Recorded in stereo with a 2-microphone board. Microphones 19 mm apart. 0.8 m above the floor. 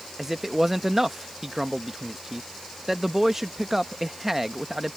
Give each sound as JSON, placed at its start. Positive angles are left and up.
{"t": 0.2, "sound": "a man speaking", "side_deg": -15}